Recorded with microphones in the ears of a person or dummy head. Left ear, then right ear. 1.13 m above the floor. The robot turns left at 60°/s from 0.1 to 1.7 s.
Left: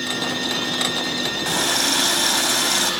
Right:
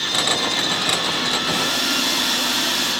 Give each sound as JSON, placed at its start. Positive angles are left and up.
{"t": 1.4, "sound": "a running tap", "side_deg": 35, "distance_m": 5.5}